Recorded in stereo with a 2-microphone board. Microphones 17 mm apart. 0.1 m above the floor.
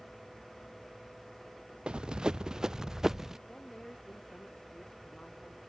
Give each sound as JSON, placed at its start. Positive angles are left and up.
{"t": 1.9, "sound": "running footsteps", "side_deg": -70}
{"t": 3.5, "sound": "a woman speaking", "side_deg": 60}